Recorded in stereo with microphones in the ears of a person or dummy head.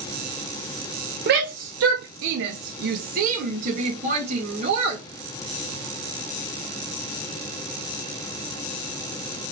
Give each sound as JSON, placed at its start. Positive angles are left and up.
{"t": 1.3, "sound": "a shout", "side_deg": -55, "distance_m": 0.7}